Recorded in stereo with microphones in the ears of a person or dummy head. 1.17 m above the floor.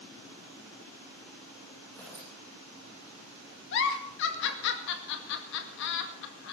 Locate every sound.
1.9 s tearing paper: 15° left (ahead or behind), 8.5 m
3.7 s a giggle: 60° left (ahead or behind), 2 m